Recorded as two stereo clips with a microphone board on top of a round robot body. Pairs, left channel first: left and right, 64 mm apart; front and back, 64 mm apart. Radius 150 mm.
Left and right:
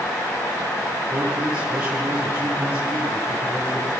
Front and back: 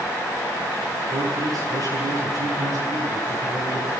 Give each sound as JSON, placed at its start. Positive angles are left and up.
{"t": 1.1, "sound": "a man speaking", "azimuth_deg": -165, "distance_m": 10.0}